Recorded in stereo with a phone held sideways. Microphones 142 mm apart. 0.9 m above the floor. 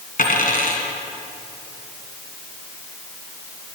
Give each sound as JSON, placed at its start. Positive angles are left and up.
{"t": 0.2, "sound": "a dropped coin", "side_deg": 75, "distance_m": 2.0}